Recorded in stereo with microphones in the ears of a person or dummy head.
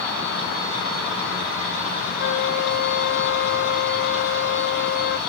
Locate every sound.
2.2 s a flute: 50° left (ahead or behind), 0.6 m